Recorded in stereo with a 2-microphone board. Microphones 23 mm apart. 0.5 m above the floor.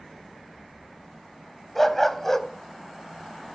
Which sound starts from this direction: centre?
A dog barking, at 1.8 s.